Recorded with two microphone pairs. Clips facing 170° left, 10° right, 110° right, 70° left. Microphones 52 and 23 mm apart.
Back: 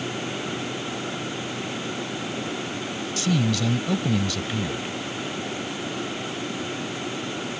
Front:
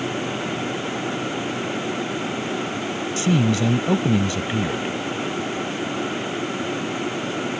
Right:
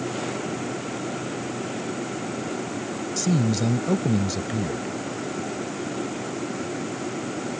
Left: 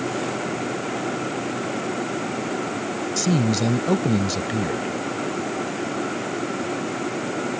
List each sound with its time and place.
3.2 s a man speaking: 30° left